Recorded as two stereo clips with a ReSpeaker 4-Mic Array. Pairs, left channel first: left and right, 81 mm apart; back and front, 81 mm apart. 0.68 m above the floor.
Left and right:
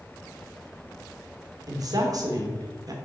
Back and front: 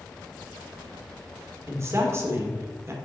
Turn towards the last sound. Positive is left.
turn(degrees=-55)